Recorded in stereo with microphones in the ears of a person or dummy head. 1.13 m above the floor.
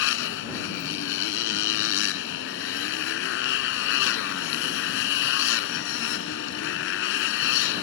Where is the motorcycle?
75° left (ahead or behind).